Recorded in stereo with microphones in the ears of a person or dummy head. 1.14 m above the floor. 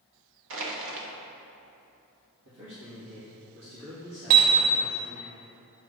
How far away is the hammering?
About 0.7 m.